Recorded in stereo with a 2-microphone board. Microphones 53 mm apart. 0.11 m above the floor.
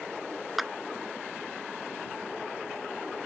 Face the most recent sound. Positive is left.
turn(degrees=0)  # may be behind; listen again after turning